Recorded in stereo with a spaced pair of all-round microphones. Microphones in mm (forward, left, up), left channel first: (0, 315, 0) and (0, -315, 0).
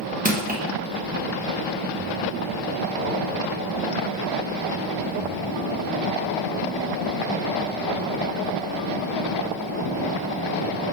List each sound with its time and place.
0.2 s crushing: 15° right (ahead or behind), 1.0 m